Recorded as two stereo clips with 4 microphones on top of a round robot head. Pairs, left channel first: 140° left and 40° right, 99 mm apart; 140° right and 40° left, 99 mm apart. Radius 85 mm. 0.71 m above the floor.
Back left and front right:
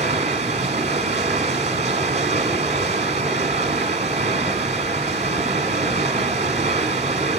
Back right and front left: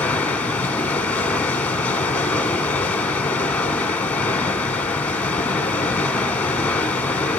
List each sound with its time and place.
0.0 s running water: 65° right, 1.0 m